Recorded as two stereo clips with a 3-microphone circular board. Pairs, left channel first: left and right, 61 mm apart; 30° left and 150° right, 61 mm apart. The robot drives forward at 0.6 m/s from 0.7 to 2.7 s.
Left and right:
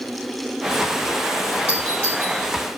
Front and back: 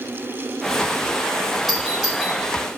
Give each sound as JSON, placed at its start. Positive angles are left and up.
{"t": 1.7, "sound": "a doorbell", "azimuth_deg": 125, "distance_m": 3.0}